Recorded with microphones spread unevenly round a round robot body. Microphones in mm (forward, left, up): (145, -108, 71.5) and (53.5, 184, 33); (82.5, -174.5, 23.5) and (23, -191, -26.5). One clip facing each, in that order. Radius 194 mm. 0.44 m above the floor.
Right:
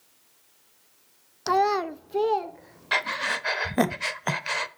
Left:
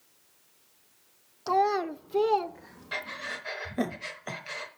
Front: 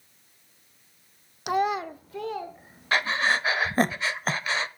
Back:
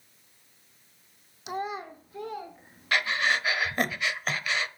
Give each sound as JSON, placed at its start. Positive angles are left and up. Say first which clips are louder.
{"t": 1.5, "sound": "a child speaking", "louder": "right 2 dB, front 8 dB", "azimuth_deg": -30, "distance_m": 0.5}
{"t": 2.9, "sound": "breathing", "louder": "right 8 dB, front 2 dB", "azimuth_deg": -50, "distance_m": 0.8}